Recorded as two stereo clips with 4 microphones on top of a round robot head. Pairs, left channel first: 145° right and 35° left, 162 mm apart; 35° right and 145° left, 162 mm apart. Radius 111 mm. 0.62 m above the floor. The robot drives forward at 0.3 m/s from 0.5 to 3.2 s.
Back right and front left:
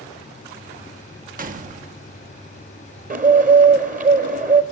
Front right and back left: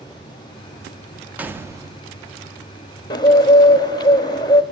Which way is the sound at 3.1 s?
20° left.